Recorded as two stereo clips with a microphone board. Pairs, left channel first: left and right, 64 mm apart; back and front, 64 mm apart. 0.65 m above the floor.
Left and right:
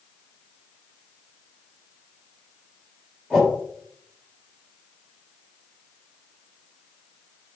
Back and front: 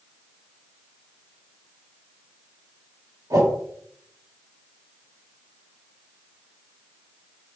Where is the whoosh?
15° left, 4 m.